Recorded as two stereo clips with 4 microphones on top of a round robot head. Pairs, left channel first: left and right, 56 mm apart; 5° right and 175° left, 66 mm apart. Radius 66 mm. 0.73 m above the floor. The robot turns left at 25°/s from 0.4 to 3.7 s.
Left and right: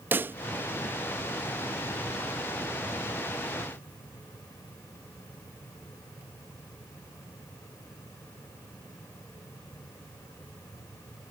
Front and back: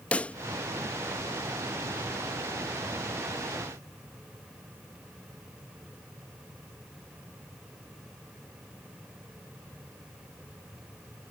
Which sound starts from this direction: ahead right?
A pop, at 0.1 s.